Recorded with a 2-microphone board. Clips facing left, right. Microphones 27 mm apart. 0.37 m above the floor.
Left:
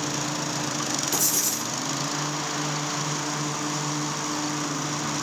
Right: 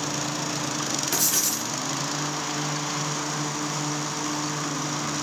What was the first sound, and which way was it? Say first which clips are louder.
Writing: right 1 dB; 55° right (ahead or behind).